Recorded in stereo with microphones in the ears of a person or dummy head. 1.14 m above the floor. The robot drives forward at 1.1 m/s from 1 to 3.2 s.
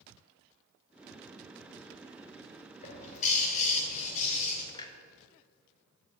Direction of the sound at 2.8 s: 40° left (ahead or behind).